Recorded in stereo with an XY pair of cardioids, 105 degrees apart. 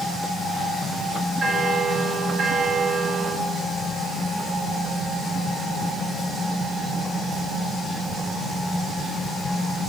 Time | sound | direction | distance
1.4 | a bell | 45° right | 5 m